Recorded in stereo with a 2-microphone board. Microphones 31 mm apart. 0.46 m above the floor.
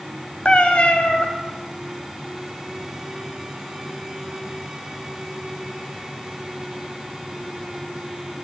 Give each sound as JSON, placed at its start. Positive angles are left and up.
{"t": 0.5, "sound": "a cat meowing", "side_deg": 30, "distance_m": 1.6}